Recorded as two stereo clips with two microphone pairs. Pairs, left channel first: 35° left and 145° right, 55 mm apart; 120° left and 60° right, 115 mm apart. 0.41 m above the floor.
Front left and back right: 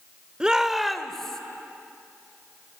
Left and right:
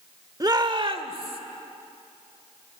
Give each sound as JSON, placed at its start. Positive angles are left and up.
{"t": 0.4, "sound": "a shout", "azimuth_deg": -85, "distance_m": 1.1}